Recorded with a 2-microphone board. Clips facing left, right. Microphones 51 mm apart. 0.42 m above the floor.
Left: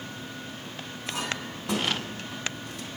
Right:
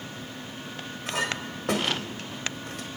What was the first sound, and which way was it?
A clink, 60° right (ahead or behind).